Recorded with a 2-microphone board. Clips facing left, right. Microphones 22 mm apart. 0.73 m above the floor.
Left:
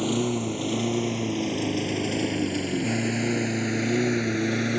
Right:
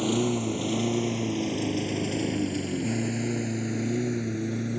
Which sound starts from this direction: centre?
A lawn mower, at 0.0 s.